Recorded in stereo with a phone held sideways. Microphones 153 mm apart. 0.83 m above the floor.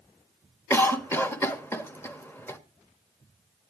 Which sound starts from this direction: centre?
A cough, at 0.7 s.